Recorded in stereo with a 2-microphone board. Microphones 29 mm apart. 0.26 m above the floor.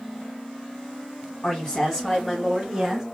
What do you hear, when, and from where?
1.4 s a woman speaking: 25° left (ahead or behind), 2 m; by 3.0 s 10° right (ahead or behind), 2.5 m